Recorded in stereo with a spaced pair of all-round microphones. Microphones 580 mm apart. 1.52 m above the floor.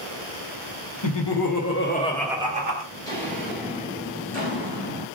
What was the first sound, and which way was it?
Laughter, 55° left (ahead or behind).